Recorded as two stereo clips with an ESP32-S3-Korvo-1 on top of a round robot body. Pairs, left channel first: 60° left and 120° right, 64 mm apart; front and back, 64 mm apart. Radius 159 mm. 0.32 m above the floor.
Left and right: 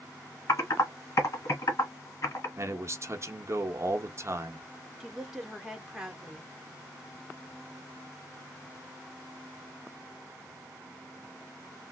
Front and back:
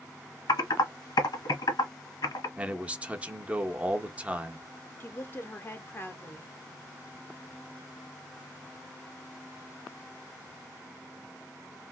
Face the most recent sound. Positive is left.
turn(degrees=-35)